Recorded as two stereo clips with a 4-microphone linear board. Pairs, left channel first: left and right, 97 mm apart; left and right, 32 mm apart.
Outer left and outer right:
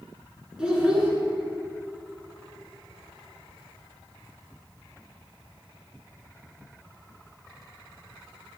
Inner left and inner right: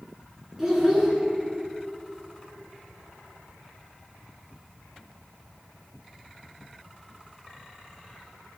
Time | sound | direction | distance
0.6 | a child speaking | 10° right (ahead or behind) | 1.8 m